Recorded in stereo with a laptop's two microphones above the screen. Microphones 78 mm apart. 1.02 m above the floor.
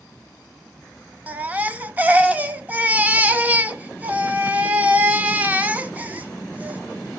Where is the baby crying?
20° right (ahead or behind), 0.5 m.